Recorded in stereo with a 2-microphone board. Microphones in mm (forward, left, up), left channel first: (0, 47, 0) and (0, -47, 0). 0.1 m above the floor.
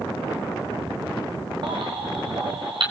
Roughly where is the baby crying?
Right.